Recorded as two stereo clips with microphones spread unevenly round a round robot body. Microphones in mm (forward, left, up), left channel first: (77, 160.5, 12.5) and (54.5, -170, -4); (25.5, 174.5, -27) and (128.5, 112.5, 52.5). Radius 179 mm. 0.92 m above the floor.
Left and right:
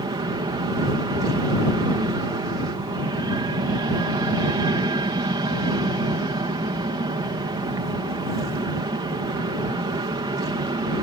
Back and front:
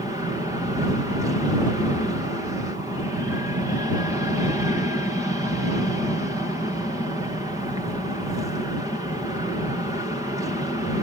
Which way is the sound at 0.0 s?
150° right.